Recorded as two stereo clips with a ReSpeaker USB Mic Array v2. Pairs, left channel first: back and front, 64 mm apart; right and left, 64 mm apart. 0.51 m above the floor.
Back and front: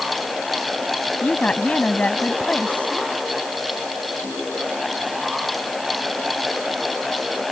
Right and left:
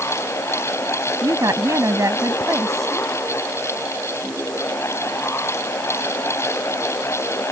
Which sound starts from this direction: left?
A woman speaking, at 1.2 s.